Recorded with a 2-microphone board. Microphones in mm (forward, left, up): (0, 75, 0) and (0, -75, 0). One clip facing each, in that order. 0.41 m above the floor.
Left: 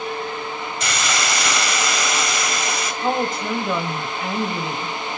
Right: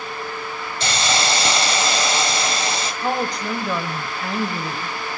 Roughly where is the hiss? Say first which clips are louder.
Right 4 dB; right.